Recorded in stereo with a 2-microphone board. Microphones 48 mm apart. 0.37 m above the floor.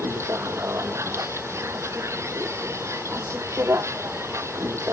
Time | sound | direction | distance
0.0 | a vehicle | 80° right | ?